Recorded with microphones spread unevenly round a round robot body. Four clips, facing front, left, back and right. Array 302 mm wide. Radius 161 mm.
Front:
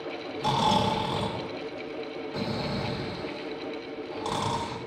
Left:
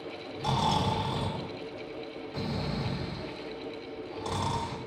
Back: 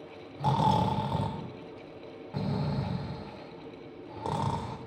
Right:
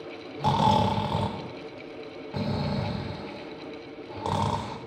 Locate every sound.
0.4 s snoring: 90° right, 0.8 m